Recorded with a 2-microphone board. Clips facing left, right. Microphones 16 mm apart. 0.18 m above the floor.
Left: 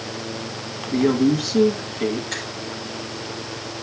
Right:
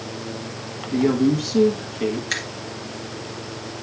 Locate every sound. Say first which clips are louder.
0.9 s a woman speaking: left 1 dB; 15° left (ahead or behind), 1.8 m
2.3 s a finger snap: right 3 dB; 65° right (ahead or behind), 2.5 m